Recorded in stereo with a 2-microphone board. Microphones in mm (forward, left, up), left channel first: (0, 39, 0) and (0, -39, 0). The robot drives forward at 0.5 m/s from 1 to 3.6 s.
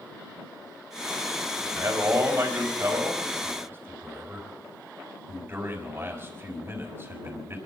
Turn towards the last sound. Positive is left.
turn(degrees=-30)  # may be behind; listen again after turning